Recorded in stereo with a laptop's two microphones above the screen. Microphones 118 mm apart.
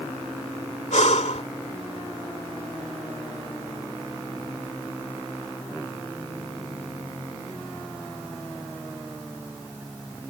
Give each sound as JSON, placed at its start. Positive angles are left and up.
{"t": 0.9, "sound": "breathing", "side_deg": 80}